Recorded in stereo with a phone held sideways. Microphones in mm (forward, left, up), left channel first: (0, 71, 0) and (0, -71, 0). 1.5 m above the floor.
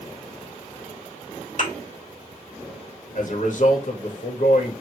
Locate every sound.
1.6 s a thud: 60° left (ahead or behind), 3.5 m
3.1 s a man speaking: 65° left (ahead or behind), 2 m